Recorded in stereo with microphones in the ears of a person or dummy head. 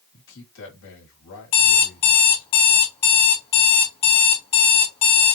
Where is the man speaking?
60° left (ahead or behind), 1.7 m.